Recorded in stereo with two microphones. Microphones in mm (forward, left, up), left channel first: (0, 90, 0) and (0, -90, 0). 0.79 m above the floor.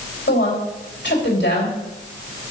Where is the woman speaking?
80° left, 3.5 m.